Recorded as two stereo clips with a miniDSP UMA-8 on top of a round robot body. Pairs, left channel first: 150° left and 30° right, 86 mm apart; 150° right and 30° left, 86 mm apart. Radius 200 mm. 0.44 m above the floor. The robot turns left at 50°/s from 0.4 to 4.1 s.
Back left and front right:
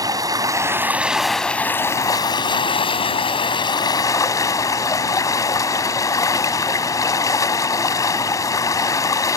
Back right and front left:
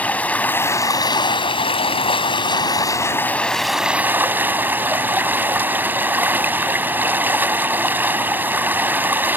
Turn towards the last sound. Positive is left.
turn(degrees=100)